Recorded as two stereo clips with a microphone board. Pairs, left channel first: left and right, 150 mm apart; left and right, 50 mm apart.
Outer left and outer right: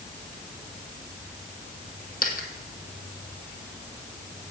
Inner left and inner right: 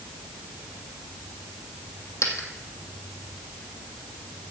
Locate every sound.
2.2 s a dropped coin: 75° left (ahead or behind), 1.9 m